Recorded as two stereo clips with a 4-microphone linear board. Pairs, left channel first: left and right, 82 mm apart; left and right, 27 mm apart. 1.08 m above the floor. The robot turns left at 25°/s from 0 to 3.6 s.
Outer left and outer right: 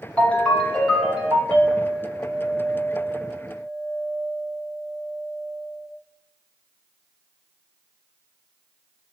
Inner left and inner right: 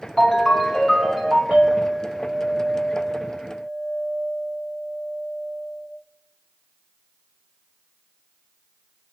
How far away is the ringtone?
About 3.5 m.